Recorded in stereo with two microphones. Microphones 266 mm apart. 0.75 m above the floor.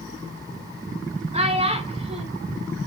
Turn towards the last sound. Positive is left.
turn(degrees=-25)  # may be behind; listen again after turning